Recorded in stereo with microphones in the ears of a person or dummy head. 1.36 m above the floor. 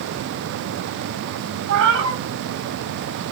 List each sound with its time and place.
1.7 s a cat meowing: 65° right (ahead or behind), 1.4 m